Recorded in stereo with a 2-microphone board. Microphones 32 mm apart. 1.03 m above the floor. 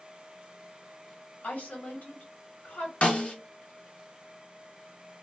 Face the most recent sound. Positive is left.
turn(degrees=45)  # may be behind; listen again after turning